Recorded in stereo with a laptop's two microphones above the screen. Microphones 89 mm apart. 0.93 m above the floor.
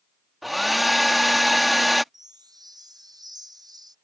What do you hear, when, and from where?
0.4 s a hair dryer: centre (ahead or behind)
2.1 s a chime: 50° right (ahead or behind)